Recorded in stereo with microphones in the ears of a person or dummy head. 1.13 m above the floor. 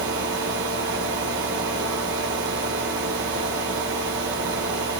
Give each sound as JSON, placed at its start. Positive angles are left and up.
{"t": 0.0, "sound": "a fan", "side_deg": -55, "distance_m": 1.2}